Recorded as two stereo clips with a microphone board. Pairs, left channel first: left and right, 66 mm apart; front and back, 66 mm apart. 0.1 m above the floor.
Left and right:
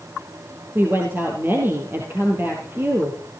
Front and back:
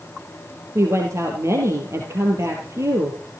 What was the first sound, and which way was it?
A woman speaking, 145° right.